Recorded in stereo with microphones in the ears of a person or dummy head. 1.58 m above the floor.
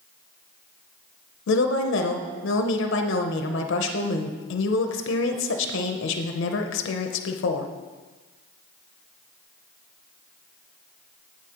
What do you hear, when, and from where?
1.5 s a woman speaking: 80° left, 0.6 m